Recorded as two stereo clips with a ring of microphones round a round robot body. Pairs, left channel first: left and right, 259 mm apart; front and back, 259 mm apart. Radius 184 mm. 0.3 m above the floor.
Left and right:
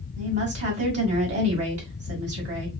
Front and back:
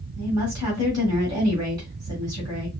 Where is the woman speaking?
105° right, 2 m.